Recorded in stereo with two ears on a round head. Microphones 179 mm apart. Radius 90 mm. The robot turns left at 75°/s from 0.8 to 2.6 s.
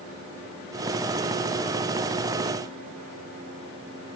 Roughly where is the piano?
No piano in this recording.